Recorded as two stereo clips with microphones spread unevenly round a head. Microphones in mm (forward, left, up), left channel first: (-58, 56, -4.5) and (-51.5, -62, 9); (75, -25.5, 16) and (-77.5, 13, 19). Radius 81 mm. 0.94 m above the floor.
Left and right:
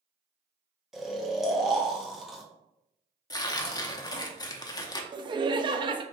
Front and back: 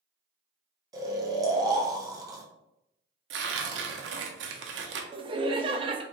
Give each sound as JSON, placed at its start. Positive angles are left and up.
{"t": 0.9, "sound": "snoring", "azimuth_deg": 175, "distance_m": 0.8}
{"t": 3.3, "sound": "tearing paper", "azimuth_deg": 155, "distance_m": 0.6}
{"t": 5.1, "sound": "laughter", "azimuth_deg": -135, "distance_m": 0.6}